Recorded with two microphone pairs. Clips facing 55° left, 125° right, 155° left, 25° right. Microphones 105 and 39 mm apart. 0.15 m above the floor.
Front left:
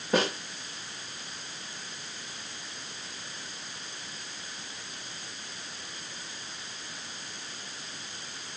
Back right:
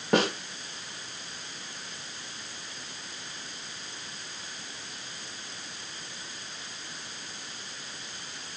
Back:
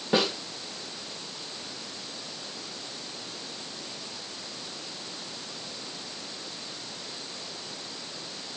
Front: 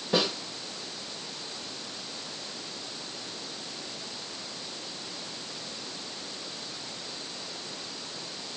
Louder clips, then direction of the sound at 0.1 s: Back right 2 dB, back 2 dB; 145° right.